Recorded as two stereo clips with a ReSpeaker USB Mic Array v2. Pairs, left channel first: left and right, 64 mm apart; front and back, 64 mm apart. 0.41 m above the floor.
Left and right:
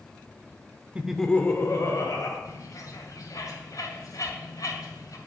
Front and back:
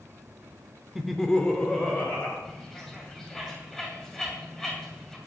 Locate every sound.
0.9 s laughter: 105° right, 0.8 m; by 2.4 s 65° left, 1.9 m
2.5 s a bird: 80° left, 2.5 m